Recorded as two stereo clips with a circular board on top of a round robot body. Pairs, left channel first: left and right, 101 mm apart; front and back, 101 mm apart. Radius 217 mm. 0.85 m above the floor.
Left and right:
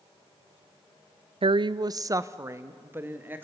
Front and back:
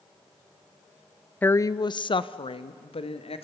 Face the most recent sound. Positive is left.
turn(degrees=-20)